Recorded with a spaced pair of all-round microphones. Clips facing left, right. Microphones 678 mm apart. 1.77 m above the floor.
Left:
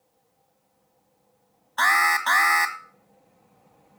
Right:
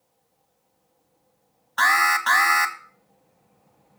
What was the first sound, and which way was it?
An alarm, 40° right (ahead or behind).